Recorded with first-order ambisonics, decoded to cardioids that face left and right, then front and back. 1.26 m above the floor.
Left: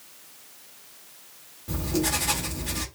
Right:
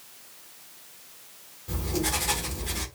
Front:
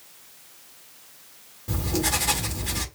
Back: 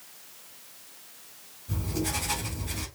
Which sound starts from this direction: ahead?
Writing, at 1.7 s.